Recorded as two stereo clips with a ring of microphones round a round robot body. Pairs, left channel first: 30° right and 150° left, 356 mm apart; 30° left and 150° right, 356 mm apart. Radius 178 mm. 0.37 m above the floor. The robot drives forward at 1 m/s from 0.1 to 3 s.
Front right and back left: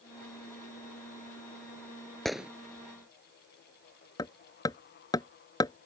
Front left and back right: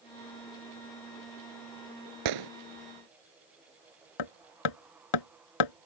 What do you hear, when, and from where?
2.2 s a gunshot: 120° right; by 2.5 s 125° right
4.2 s hammering: 50° left